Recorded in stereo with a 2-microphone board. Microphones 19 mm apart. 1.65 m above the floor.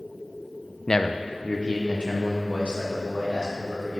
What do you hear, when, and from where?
0.9 s a man speaking: 25° left (ahead or behind), 0.5 m; by 4.0 s 85° left, 4 m